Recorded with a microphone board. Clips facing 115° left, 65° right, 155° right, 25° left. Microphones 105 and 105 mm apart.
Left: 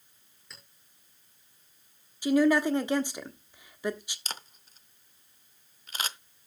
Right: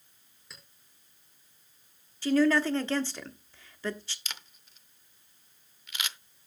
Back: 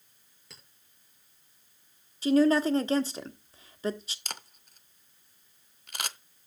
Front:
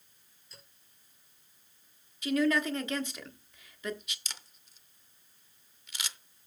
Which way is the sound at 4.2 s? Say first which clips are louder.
Left 4 dB, back 7 dB; 165° left.